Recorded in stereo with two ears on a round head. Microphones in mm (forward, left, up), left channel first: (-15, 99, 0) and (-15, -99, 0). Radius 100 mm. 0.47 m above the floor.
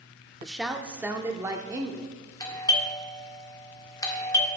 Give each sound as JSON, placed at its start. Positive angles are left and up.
{"t": 0.4, "sound": "a woman speaking", "side_deg": 0, "distance_m": 0.7}
{"t": 2.4, "sound": "a doorbell", "side_deg": 20, "distance_m": 1.3}